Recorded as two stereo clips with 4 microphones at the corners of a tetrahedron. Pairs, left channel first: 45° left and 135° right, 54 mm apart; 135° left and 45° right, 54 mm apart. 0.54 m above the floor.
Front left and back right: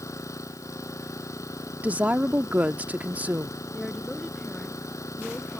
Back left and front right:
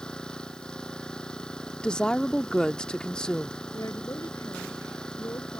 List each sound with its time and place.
0.0 s an engine running: 60° left
1.8 s a woman speaking: 165° right
3.7 s a woman speaking: 125° left